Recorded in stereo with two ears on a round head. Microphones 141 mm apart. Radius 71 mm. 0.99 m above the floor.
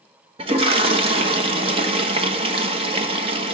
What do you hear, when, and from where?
0.4 s a toilet flushing: 35° right (ahead or behind), 1.2 m